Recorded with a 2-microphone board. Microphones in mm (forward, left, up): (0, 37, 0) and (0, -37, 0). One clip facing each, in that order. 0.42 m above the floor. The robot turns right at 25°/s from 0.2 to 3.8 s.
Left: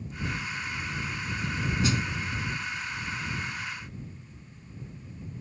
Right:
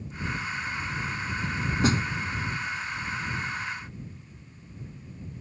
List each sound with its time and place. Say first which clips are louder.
1.8 s a snare drum: right 5 dB; 45° right (ahead or behind); by 2.0 s 40° right (ahead or behind)